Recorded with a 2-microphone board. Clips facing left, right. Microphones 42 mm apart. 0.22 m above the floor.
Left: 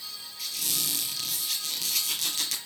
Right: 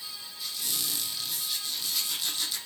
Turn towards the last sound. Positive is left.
turn(degrees=75)  # may be behind; listen again after turning